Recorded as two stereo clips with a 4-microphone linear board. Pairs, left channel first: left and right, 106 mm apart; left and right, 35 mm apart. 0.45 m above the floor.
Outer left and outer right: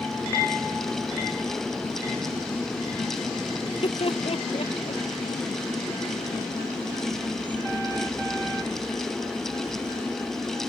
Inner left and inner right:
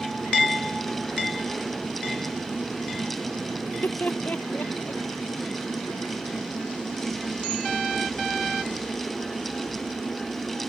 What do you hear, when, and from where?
3.6 s laughter: 60° left (ahead or behind); by 5.0 s 65° left (ahead or behind)